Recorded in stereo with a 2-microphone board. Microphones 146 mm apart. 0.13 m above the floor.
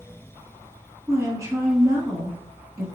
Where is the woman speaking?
20° right (ahead or behind), 1.4 m.